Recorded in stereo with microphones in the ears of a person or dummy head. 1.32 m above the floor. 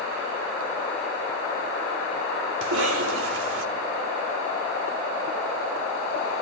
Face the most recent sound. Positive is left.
turn(degrees=-90)